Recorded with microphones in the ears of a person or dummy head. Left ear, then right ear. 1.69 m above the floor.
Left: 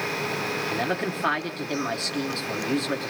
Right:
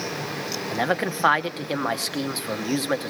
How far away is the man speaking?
About 1.0 m.